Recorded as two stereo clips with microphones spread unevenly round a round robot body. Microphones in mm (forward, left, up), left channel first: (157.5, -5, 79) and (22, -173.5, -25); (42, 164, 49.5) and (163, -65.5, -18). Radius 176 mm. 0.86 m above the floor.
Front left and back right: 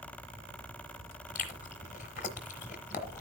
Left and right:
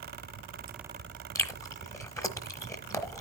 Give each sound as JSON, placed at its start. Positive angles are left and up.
{"t": 1.4, "sound": "chewing", "azimuth_deg": 50, "distance_m": 1.0}